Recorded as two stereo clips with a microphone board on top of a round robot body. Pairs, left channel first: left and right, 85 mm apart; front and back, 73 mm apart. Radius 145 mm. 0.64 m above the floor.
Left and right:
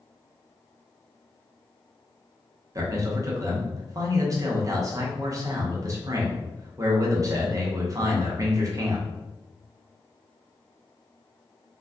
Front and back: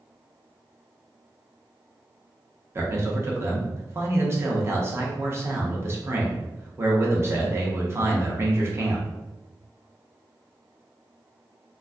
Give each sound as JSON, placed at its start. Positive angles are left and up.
{"t": 2.8, "sound": "a man speaking", "azimuth_deg": -130, "distance_m": 0.8}